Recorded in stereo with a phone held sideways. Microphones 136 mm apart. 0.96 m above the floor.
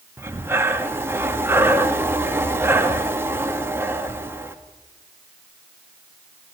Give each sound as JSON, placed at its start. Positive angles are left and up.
{"t": 0.2, "sound": "breathing", "side_deg": -20, "distance_m": 1.4}